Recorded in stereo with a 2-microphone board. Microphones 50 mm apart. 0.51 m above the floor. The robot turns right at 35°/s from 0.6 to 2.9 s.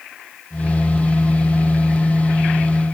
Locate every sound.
Only background noise.